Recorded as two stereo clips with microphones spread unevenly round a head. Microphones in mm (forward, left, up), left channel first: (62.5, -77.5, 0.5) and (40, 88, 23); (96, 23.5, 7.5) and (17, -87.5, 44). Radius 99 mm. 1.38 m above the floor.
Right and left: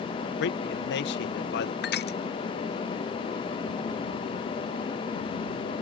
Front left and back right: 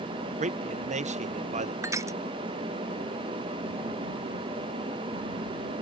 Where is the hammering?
I don't hear hammering.